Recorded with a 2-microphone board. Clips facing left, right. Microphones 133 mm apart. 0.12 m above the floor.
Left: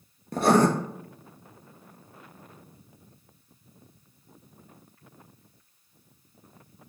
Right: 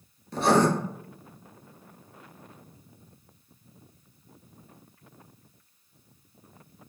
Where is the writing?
55° left (ahead or behind), 0.8 m.